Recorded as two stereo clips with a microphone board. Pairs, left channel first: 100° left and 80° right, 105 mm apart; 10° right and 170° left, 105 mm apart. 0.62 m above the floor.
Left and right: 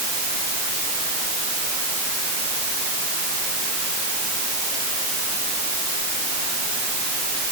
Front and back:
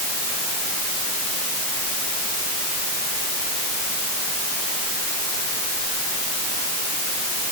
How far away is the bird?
No bird in this recording.